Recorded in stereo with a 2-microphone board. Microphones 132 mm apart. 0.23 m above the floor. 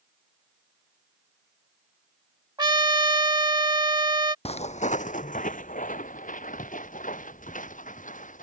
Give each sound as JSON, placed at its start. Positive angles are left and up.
{"t": 2.6, "sound": "a trumpet", "side_deg": -35}
{"t": 4.5, "sound": "footsteps", "side_deg": 55}